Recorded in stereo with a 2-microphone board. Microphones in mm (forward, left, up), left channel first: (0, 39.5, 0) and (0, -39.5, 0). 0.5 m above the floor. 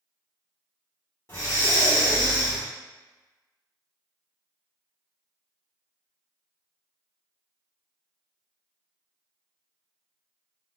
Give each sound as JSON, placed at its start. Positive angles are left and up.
{"t": 1.3, "sound": "breathing", "side_deg": 35, "distance_m": 1.5}